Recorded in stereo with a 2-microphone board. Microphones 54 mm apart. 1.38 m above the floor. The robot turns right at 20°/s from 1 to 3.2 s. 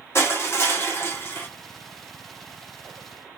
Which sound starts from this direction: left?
Crushing, at 0.1 s.